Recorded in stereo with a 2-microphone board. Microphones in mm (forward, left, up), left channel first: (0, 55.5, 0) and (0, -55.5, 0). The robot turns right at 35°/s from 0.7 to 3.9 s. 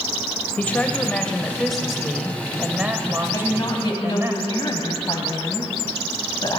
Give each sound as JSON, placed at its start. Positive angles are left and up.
{"t": 0.6, "sound": "a woman speaking", "side_deg": 15, "distance_m": 1.2}
{"t": 3.3, "sound": "a woman speaking", "side_deg": 30, "distance_m": 2.0}